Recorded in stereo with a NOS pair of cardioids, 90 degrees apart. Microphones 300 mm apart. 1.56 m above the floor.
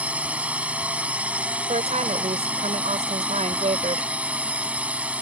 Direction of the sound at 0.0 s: 5° right.